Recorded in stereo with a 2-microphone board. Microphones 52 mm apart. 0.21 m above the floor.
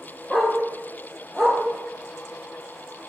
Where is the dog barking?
5° left (ahead or behind), 3 m.